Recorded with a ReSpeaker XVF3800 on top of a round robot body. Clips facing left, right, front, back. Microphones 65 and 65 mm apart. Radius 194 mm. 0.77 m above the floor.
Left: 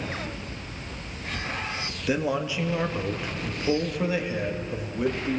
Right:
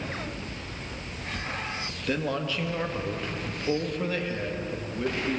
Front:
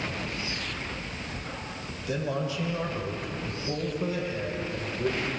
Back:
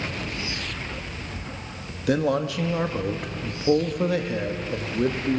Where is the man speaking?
170° left, 2 m.